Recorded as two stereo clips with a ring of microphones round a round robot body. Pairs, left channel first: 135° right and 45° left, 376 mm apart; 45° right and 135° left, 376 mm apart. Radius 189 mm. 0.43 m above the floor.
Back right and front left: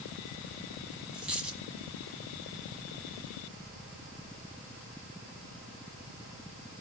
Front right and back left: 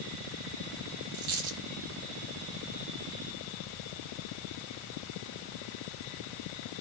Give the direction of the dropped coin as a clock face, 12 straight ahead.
8 o'clock.